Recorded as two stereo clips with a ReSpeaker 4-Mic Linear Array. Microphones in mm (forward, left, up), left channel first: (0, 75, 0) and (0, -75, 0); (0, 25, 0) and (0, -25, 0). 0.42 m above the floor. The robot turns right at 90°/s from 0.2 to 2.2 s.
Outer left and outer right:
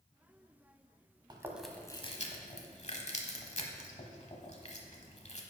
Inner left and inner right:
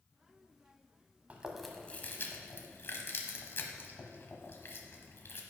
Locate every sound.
1.3 s chewing: 30° right (ahead or behind), 1.0 m; by 5.4 s 50° left (ahead or behind), 1.0 m